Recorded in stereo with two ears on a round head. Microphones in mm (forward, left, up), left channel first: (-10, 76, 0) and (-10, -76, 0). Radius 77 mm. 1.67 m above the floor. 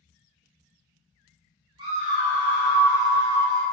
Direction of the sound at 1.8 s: 25° right (ahead or behind).